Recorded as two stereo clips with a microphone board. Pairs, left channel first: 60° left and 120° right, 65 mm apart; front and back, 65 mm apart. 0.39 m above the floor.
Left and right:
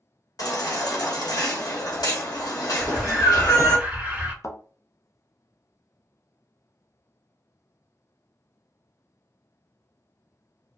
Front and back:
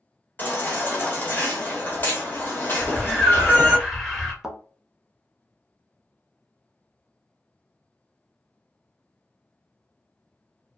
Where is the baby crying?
55° left, 1.0 m.